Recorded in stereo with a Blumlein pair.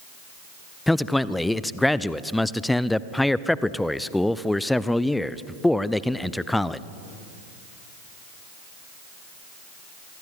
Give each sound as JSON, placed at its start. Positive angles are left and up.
{"t": 0.9, "sound": "a man speaking", "azimuth_deg": 5, "distance_m": 0.6}